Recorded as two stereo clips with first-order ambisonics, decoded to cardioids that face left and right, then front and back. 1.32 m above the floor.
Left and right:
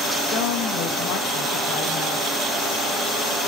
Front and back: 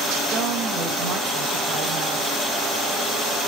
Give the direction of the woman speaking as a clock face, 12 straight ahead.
8 o'clock.